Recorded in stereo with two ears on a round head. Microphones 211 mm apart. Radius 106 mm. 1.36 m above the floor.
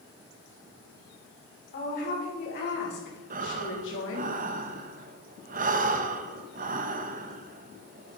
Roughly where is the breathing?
Right.